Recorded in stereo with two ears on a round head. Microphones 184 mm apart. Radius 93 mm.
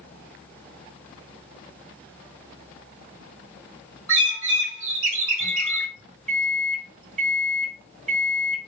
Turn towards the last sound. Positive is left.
turn(degrees=-35)  # may be behind; listen again after turning